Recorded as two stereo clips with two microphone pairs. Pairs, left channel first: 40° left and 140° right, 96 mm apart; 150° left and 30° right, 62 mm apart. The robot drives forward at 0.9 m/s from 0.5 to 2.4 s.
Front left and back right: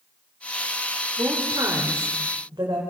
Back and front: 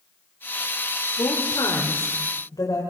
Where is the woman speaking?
165° left, 3 m; by 2.8 s 170° left, 4.5 m.